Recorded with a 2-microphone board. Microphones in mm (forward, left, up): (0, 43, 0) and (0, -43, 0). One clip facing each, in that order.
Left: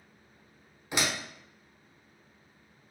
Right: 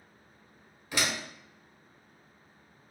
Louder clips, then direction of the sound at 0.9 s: Left 1 dB; 20° left (ahead or behind).